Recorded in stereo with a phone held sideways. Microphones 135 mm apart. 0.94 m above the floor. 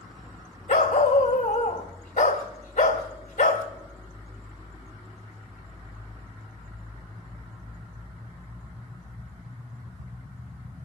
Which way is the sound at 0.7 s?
70° left (ahead or behind).